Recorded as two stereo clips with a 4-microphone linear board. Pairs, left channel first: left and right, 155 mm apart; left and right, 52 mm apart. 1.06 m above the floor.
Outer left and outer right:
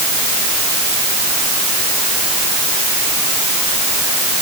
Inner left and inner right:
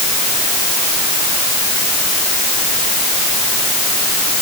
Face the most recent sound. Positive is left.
No sound to turn to.